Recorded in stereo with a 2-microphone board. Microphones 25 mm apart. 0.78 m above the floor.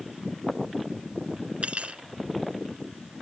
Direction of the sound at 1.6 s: 55° right (ahead or behind).